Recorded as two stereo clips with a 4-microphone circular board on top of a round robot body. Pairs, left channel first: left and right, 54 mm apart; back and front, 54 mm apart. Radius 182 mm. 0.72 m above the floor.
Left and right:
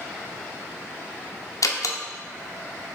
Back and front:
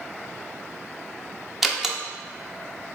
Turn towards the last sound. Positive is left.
turn(degrees=85)